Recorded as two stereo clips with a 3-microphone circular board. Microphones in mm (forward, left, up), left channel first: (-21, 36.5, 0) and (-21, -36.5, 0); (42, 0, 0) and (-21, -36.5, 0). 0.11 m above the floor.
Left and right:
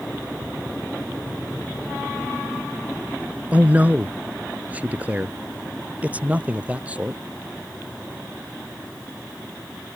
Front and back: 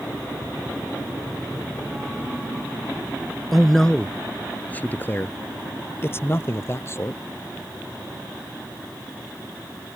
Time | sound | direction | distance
3.5 | a man speaking | 55° right | ?